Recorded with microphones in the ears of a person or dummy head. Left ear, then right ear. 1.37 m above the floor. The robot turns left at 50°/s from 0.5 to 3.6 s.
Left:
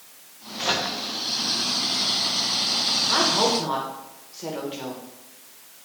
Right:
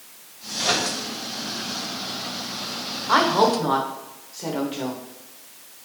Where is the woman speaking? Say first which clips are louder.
Right 6 dB; 30° right (ahead or behind), 0.9 m; by 5.0 s 5° right (ahead or behind), 0.9 m.